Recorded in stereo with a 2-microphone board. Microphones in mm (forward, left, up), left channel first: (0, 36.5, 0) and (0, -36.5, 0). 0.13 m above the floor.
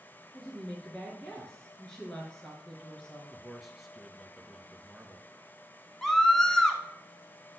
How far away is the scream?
About 1.2 m.